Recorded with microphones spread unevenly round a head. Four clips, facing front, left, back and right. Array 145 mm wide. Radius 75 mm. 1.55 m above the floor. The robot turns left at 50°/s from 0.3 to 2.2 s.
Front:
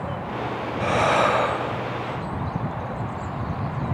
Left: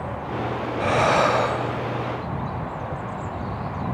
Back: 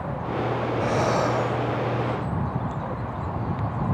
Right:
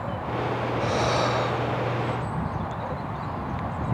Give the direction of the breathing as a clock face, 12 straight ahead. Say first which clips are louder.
Left 7 dB, front 4 dB; 9 o'clock.